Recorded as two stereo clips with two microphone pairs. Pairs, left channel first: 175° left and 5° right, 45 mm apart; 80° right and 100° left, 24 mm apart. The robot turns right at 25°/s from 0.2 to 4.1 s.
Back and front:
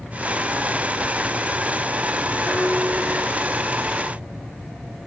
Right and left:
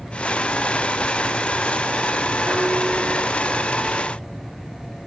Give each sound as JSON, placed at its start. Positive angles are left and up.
{"t": 2.5, "sound": "dishes clattering", "azimuth_deg": 100, "distance_m": 6.0}